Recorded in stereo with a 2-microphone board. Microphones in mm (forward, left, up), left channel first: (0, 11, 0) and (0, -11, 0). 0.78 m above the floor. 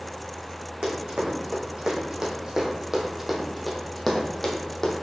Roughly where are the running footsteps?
Right.